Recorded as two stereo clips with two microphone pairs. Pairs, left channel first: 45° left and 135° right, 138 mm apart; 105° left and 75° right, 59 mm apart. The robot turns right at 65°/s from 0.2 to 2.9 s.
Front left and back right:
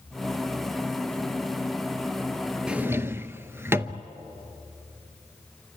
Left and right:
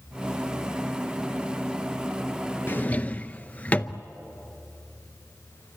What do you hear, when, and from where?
2.7 s a drawer: 145° left, 0.6 m; by 4.0 s 160° left, 0.6 m